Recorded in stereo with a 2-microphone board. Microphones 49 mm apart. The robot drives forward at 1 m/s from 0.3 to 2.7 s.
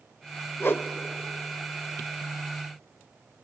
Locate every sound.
0.6 s a whoosh: 50° left (ahead or behind), 0.5 m; by 0.9 s 40° left (ahead or behind), 0.6 m